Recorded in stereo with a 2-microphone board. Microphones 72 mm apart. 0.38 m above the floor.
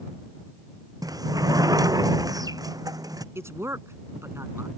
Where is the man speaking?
40° right (ahead or behind).